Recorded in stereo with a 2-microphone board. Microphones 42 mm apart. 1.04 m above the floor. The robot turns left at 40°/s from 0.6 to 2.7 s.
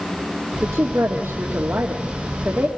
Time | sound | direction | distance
0.6 | a woman speaking | 75° right | 2 m